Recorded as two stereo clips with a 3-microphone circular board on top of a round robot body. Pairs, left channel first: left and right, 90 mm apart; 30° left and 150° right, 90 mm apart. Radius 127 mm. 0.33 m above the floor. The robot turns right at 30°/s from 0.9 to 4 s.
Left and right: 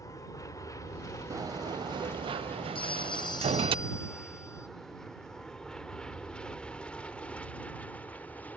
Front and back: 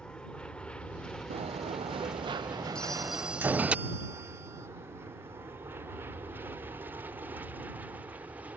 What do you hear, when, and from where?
0.0 s an aircraft: 105° left; by 8.6 s 150° left
1.3 s a sliding door: 145° right; by 3.8 s 70° right
2.8 s a phone ringing: 110° left; by 4.7 s 150° left